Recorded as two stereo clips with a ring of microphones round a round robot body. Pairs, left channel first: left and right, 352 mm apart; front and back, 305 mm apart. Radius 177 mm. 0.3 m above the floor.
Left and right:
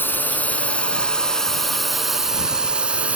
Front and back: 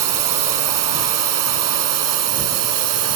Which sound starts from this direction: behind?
A drone, at 0.0 s.